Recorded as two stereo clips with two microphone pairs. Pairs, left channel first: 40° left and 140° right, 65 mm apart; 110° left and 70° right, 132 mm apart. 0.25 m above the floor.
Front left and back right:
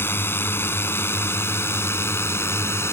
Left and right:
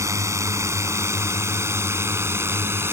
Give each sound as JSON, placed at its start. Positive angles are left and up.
{"t": 0.0, "sound": "a drone", "azimuth_deg": -5}